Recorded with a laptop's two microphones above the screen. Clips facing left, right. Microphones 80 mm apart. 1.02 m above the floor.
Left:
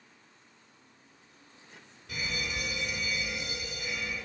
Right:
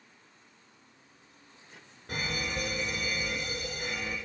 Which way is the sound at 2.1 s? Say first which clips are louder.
Right 2 dB; 45° right (ahead or behind).